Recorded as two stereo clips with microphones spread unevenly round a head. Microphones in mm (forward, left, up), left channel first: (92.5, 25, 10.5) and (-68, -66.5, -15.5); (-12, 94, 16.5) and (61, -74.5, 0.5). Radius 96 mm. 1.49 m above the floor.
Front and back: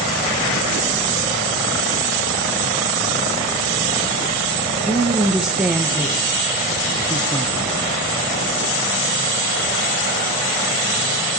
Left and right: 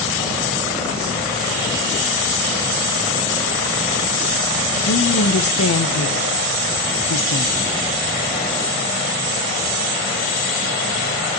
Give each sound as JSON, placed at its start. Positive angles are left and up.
{"t": 4.8, "sound": "a woman speaking", "azimuth_deg": 125, "distance_m": 2.0}